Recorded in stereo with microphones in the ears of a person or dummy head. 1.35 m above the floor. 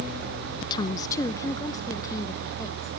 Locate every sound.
0.6 s a woman speaking: 25° left (ahead or behind), 0.5 m; by 2.9 s 15° left (ahead or behind), 1.9 m